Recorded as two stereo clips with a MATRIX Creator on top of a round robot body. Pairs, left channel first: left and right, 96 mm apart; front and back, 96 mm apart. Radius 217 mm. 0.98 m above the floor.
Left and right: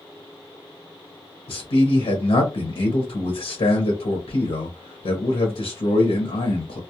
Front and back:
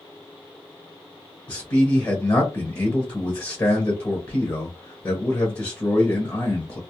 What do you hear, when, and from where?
1.5 s a man speaking: 65° left, 0.9 m